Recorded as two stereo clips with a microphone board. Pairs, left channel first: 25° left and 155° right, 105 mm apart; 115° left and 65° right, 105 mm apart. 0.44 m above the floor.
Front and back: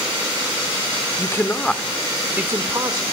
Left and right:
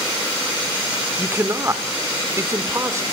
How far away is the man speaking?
About 1.4 m.